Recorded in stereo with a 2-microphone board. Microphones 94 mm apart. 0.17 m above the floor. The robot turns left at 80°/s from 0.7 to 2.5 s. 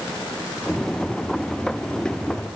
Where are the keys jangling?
I don't hear keys jangling.